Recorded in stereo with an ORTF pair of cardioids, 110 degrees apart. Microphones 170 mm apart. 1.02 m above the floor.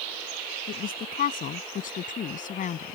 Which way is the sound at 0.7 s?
60° left.